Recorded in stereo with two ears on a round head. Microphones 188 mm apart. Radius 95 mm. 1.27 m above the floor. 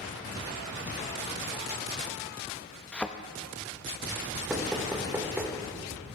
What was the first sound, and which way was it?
A thud, 5° left (ahead or behind).